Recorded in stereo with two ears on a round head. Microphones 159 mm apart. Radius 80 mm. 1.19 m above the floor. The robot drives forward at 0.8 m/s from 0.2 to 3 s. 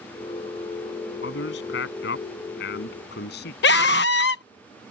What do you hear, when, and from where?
1.2 s a man speaking: 75° left (ahead or behind); by 3.5 s 65° left (ahead or behind)
3.6 s a scream: 65° left (ahead or behind)